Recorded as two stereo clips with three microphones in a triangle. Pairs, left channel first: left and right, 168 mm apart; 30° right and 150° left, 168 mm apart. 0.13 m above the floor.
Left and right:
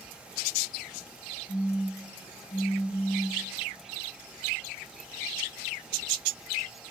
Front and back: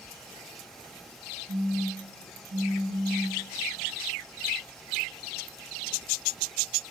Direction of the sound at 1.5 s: 140° left.